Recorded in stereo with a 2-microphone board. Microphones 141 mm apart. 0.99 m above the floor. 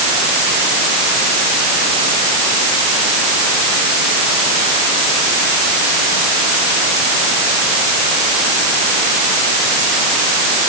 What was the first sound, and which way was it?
Only background noise.